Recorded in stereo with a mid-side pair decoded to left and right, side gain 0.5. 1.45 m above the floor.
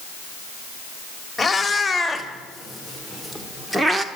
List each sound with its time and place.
1.4 s a cat meowing: 10° left, 3.5 m; by 4.0 s 25° right, 1.8 m